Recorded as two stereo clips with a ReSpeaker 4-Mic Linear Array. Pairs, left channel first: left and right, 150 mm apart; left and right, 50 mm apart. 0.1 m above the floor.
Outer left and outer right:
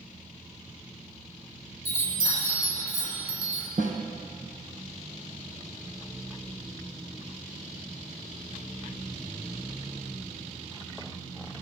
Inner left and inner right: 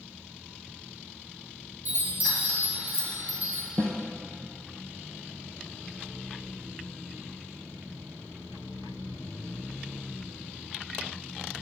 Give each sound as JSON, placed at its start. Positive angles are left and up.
{"t": 1.9, "sound": "a chime", "side_deg": -40, "distance_m": 2.0}
{"t": 3.8, "sound": "a snare drum", "side_deg": -65, "distance_m": 1.6}